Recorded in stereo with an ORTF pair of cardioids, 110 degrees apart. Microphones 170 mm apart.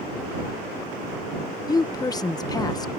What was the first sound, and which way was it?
A woman speaking, 20° left.